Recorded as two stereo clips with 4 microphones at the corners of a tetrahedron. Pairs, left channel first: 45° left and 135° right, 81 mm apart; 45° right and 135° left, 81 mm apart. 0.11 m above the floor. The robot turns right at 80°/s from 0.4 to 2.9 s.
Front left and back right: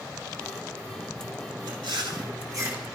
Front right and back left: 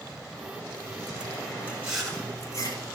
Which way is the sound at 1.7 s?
160° right.